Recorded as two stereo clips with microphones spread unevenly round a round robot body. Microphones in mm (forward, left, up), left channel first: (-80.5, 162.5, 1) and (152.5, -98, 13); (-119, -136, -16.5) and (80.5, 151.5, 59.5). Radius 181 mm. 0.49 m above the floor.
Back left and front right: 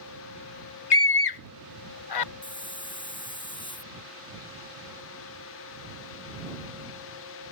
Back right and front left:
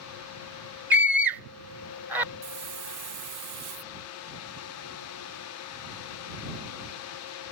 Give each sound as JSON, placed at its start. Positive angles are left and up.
{"t": 0.9, "sound": "a scream", "azimuth_deg": 145}
{"t": 2.4, "sound": "a hiss", "azimuth_deg": 55}